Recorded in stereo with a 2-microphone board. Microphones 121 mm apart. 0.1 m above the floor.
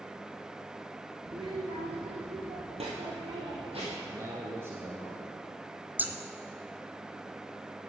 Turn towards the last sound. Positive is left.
turn(degrees=-15)  # may be behind; listen again after turning